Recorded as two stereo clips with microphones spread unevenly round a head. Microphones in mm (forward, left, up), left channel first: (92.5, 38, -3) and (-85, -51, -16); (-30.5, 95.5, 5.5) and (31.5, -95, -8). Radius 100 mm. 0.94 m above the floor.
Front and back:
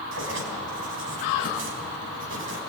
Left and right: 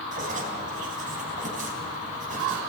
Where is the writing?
125° right, 4.5 m.